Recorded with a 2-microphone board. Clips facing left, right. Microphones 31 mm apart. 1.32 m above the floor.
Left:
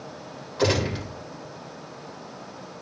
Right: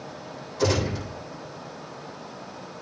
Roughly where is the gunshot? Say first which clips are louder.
Left 1 dB; left.